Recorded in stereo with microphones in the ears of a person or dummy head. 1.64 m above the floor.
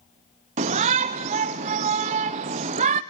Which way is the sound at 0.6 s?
25° right (ahead or behind).